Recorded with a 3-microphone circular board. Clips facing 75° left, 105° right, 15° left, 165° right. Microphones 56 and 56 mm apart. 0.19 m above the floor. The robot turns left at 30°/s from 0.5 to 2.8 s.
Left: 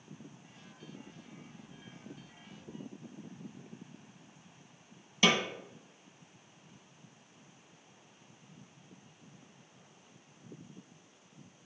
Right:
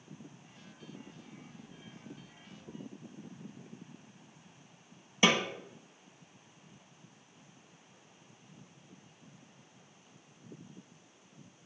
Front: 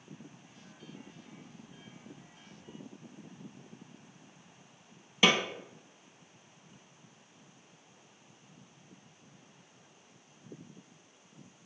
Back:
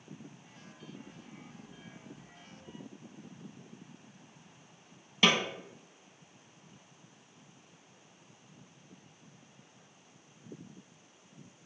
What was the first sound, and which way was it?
A snare drum, 65° right.